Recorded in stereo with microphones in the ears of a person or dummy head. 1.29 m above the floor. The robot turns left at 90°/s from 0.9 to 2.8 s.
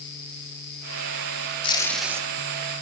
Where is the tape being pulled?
30° left, 1.0 m; by 2.3 s 25° right, 1.0 m.